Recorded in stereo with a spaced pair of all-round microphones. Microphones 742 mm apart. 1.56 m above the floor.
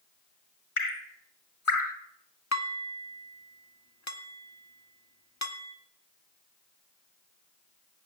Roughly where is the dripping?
Left.